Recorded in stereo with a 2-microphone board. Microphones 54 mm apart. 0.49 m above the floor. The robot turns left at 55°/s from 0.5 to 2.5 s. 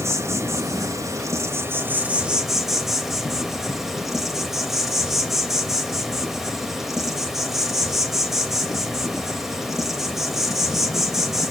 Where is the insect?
65° right, 0.9 m; by 11.5 s 175° right, 0.9 m.